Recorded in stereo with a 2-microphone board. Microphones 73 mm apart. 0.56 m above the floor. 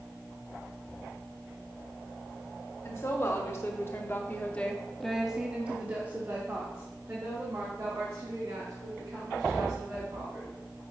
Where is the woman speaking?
40° left (ahead or behind), 1.3 m; by 10.5 s 40° right (ahead or behind), 3.5 m.